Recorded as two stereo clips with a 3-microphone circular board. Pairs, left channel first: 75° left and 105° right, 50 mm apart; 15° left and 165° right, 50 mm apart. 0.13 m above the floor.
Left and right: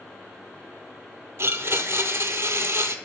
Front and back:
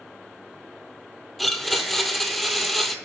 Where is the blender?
75° right, 0.6 m.